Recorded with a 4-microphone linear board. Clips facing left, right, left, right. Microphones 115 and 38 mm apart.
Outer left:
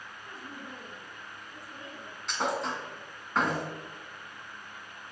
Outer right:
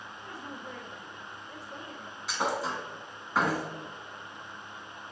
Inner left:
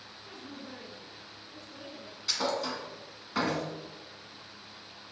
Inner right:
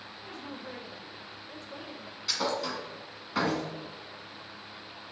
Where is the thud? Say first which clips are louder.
Even, even; 5° right (ahead or behind), 1.5 m.